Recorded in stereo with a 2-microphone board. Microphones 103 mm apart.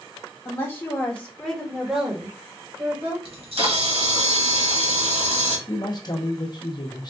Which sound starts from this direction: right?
A camera shutter, at 3.2 s.